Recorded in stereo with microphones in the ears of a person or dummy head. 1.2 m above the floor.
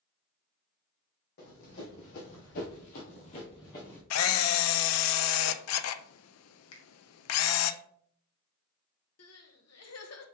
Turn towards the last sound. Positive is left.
turn(degrees=75)  # may be behind; listen again after turning